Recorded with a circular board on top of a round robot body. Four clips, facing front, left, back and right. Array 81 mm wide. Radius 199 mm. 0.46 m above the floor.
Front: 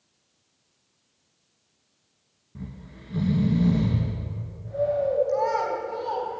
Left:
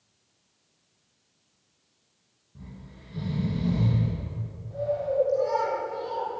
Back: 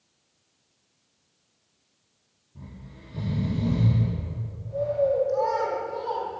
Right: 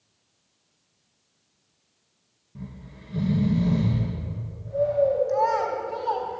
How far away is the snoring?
About 3 m.